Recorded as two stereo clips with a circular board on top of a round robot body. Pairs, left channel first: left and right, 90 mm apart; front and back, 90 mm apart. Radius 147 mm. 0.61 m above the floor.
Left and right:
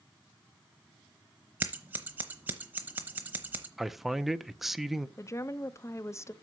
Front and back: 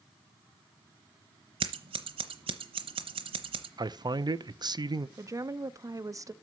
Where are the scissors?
165° right, 0.8 m.